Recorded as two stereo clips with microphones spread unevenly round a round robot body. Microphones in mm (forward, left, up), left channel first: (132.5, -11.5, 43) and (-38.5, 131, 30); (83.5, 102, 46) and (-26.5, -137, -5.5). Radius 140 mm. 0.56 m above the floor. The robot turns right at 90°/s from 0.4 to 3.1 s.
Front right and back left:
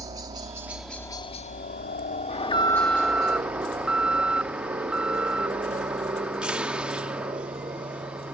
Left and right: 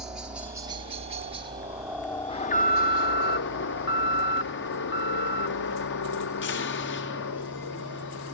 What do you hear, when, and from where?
0.0 s a helicopter: 175° right; by 8.3 s 75° left
2.3 s an alarm: 10° right; by 8.3 s 65° left